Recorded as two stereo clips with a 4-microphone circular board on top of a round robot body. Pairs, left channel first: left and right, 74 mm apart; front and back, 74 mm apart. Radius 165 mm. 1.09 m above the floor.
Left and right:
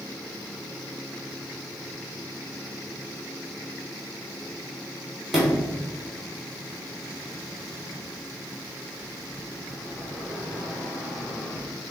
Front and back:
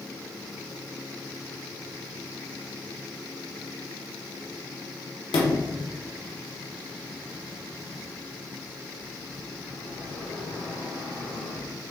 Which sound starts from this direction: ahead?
A sliding door, at 5.3 s.